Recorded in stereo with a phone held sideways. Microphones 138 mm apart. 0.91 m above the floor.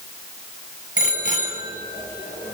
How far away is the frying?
I don't hear frying.